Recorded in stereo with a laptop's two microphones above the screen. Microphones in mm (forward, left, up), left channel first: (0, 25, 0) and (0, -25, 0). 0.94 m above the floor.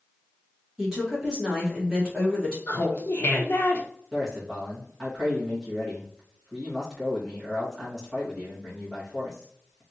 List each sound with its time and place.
0.8 s a woman speaking: 15° right (ahead or behind), 1.2 m
2.7 s laughter: 50° left (ahead or behind), 0.8 m
4.1 s a man speaking: 5° right (ahead or behind), 1.4 m